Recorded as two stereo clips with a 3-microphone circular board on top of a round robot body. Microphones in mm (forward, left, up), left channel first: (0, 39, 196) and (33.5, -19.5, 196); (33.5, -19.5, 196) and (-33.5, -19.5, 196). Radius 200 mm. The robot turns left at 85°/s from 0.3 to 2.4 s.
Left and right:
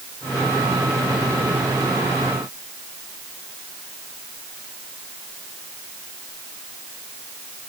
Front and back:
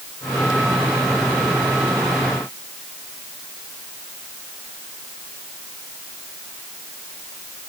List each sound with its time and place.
Only background noise.